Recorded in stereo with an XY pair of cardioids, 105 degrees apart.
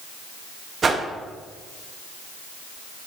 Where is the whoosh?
40° right, 0.6 m.